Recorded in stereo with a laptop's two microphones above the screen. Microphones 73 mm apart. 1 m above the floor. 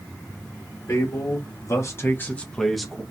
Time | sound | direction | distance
0.9 | a man speaking | 55° left (ahead or behind) | 0.9 m